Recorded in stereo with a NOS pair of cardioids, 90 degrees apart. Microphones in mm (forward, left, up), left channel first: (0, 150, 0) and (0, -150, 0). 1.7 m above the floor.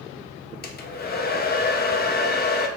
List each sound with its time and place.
0.6 s a hair dryer: 30° left, 0.6 m